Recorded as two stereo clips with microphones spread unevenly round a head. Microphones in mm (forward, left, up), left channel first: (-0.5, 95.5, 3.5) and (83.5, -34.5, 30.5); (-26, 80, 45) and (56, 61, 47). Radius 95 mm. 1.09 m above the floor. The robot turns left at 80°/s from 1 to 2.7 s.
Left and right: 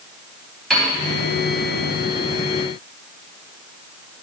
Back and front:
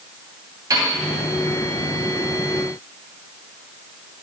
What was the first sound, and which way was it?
A piano, 35° left.